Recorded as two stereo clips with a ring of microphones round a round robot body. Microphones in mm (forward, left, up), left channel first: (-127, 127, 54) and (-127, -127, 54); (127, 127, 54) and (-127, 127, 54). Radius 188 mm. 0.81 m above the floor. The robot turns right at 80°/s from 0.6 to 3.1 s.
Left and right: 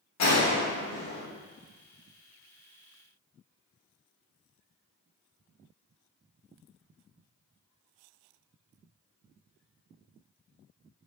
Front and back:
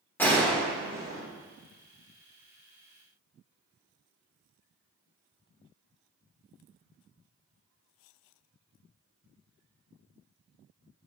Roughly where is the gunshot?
Left.